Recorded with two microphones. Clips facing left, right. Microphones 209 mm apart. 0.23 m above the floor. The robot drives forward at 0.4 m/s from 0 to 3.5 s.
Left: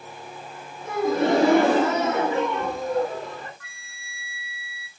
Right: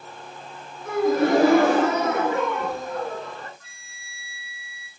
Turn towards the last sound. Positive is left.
turn(degrees=70)  # may be behind; listen again after turning